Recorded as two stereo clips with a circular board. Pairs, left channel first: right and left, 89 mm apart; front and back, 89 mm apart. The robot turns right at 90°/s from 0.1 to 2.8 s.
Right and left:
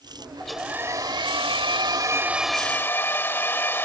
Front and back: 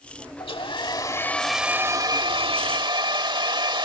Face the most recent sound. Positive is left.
turn(degrees=-155)